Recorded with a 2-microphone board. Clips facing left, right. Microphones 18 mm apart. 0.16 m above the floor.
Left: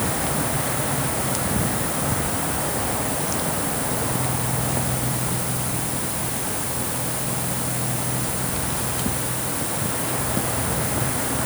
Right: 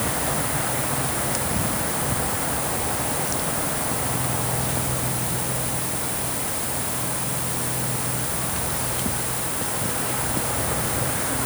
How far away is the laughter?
No laughter in this recording.